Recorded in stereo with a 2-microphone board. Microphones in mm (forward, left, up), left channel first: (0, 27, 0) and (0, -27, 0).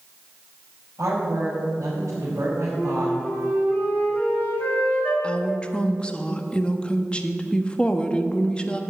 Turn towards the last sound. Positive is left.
turn(degrees=20)  # may be behind; listen again after turning